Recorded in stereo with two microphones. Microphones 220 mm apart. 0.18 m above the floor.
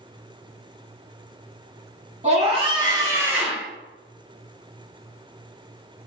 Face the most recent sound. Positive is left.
turn(degrees=0)  # may be behind; listen again after turning